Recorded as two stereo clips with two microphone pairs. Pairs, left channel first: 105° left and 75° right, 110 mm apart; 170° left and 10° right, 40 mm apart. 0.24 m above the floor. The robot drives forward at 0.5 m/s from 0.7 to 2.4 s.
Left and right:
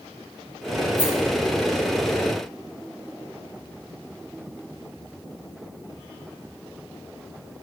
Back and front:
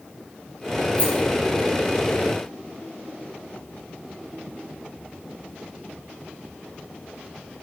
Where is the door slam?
I don't hear a door slam.